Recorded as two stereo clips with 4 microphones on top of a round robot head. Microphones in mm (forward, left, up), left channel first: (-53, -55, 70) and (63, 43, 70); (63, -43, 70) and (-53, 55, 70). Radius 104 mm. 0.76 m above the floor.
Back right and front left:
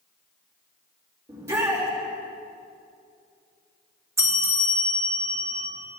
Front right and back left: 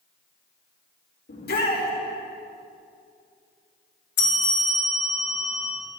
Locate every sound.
1.3 s a shout: 30° right, 2.5 m
4.2 s a bell: 35° right, 1.9 m